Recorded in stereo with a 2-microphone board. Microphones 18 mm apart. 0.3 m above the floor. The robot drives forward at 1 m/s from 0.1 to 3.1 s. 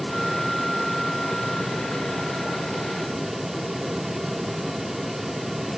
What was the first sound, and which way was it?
Only background noise.